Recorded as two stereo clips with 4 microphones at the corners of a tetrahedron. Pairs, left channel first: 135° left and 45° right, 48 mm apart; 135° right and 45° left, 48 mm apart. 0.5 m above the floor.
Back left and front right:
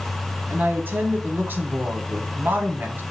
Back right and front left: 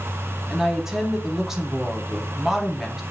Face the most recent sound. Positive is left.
turn(degrees=-30)